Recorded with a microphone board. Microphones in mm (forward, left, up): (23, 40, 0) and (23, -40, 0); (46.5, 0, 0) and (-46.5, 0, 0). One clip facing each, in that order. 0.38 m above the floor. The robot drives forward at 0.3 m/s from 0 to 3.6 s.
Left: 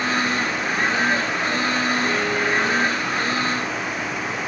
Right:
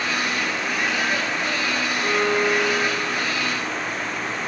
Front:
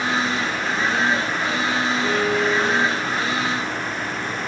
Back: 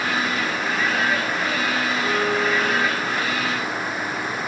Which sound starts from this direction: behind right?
A violin, at 2.0 s.